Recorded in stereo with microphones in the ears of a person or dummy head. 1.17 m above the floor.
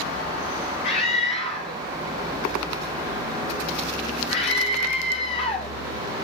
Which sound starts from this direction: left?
A scream, at 0.8 s.